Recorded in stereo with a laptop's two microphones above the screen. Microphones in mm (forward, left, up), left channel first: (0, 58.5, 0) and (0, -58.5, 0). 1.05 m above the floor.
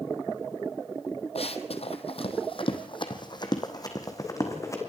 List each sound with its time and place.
1.4 s running footsteps: 55° left (ahead or behind), 1.9 m; by 4.8 s 25° left (ahead or behind), 3.5 m